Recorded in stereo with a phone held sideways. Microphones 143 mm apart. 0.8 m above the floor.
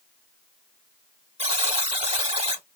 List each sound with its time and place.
1.4 s a buzzer: 40° right (ahead or behind), 1.5 m